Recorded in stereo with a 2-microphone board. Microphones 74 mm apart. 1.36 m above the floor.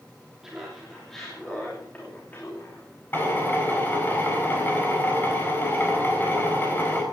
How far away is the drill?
About 4 m.